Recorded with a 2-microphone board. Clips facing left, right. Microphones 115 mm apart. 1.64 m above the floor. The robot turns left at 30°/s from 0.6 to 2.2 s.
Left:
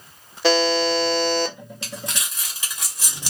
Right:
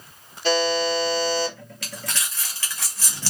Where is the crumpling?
25° left (ahead or behind), 1.1 m; by 3.3 s 15° left (ahead or behind), 1.1 m.